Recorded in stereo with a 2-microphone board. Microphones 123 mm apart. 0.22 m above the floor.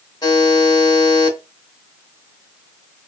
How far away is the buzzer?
About 1.3 m.